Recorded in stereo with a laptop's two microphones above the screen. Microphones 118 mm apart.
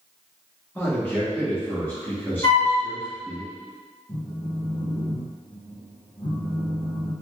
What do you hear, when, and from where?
0.8 s a man speaking: 20° left (ahead or behind), 1.3 m
2.4 s a flute: 35° left (ahead or behind), 1.6 m
4.1 s a phone buzzing: 50° left (ahead or behind), 0.7 m